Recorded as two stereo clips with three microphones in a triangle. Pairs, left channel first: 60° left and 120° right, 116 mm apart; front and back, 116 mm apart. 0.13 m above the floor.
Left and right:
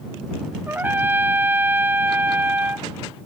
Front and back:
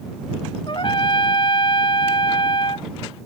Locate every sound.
0.7 s a trumpet: 45° right